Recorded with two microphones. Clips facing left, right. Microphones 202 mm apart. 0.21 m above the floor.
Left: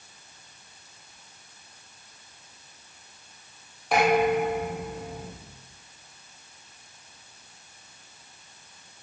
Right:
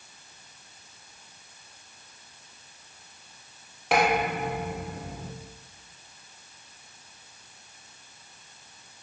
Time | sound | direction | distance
3.9 | dishes clattering | 75° right (ahead or behind) | 4 m